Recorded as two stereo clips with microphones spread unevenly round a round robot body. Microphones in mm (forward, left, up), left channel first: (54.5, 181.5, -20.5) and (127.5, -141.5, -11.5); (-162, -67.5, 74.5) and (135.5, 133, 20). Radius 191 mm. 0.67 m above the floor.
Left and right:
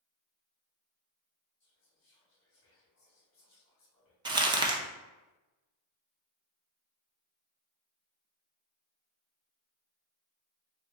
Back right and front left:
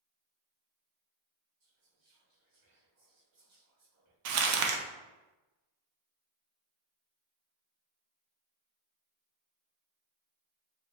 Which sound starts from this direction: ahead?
Crumpling, at 4.2 s.